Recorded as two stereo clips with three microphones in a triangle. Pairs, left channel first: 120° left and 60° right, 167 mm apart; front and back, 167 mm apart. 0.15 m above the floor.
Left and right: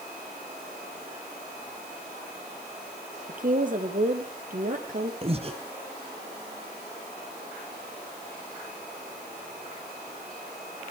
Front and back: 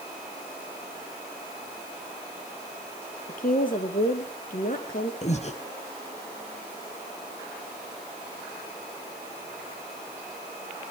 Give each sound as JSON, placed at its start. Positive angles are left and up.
{"t": 3.3, "sound": "a woman speaking", "azimuth_deg": -30, "distance_m": 3.5}
{"t": 5.2, "sound": "breathing", "azimuth_deg": -25, "distance_m": 1.9}